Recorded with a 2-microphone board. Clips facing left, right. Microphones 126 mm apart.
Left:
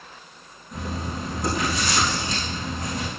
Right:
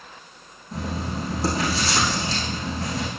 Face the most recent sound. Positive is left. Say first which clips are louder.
# right 2 dB
turn(degrees=-35)  # may be behind; listen again after turning